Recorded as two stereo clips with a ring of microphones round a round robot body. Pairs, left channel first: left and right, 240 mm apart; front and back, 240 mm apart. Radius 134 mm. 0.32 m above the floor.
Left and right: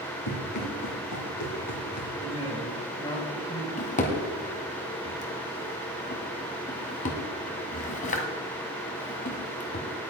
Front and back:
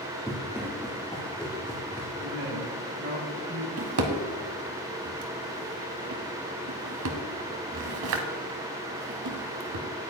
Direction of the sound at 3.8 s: 150° left.